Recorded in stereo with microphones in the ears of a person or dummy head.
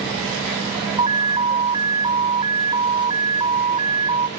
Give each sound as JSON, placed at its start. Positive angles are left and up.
{"t": 1.0, "sound": "an alarm", "side_deg": -30, "distance_m": 1.0}